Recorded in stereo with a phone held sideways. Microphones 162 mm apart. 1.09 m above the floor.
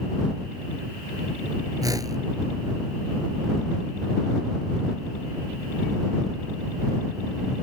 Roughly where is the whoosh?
Right.